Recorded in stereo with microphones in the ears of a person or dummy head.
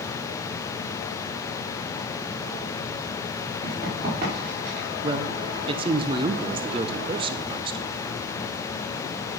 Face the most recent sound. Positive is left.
turn(degrees=-30)  # may be behind; listen again after turning